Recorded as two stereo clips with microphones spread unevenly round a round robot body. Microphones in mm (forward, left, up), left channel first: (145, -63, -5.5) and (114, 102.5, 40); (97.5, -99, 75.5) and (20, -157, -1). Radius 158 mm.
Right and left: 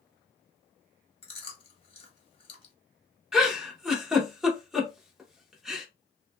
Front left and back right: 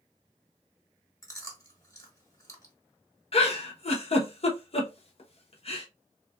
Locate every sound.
1.2 s chewing: 50° right, 1.3 m
3.3 s a giggle: 20° right, 0.8 m